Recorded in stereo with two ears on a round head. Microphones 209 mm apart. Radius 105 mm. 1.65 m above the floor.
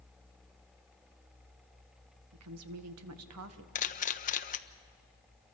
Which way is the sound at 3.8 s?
35° left (ahead or behind).